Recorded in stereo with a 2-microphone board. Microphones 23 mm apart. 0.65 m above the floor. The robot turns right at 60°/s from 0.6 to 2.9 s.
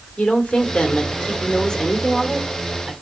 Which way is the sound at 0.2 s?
70° left.